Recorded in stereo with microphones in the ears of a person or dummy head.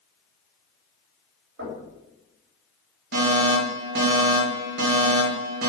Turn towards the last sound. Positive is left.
turn(degrees=-65)  # may be behind; listen again after turning